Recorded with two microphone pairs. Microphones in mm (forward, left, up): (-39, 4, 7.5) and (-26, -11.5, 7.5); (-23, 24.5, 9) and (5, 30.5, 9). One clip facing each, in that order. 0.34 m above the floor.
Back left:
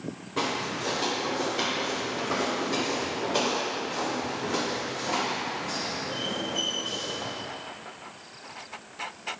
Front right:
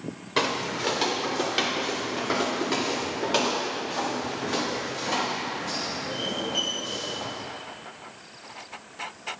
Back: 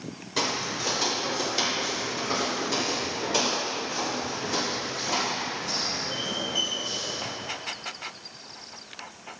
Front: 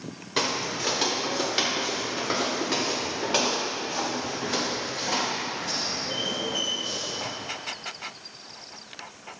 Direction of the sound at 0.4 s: 45° right.